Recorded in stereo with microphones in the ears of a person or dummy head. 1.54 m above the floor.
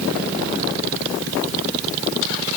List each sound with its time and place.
Only background noise.